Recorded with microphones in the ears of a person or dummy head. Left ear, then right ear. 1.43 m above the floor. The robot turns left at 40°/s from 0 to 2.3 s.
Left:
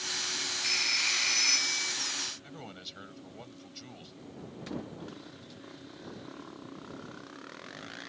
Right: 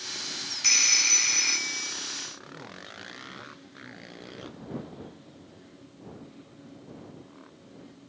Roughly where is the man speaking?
Left.